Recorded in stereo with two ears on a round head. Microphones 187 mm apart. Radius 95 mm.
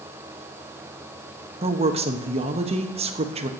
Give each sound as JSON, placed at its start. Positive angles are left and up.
{"t": 1.6, "sound": "a woman speaking", "side_deg": -30, "distance_m": 1.0}